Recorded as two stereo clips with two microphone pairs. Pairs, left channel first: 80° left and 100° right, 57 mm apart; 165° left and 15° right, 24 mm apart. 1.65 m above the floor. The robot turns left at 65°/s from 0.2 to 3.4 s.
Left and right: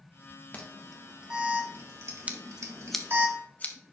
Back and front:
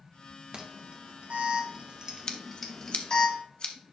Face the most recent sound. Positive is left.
turn(degrees=130)